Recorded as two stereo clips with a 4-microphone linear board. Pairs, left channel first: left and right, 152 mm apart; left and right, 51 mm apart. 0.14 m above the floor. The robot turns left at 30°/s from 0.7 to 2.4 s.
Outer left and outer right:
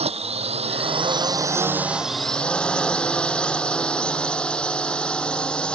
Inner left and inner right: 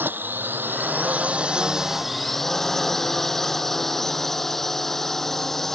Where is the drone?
135° right; by 5.7 s 175° left.